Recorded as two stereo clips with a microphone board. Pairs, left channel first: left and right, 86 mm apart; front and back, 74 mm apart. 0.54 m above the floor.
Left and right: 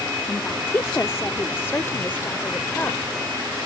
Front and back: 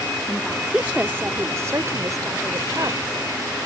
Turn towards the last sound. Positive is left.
turn(degrees=155)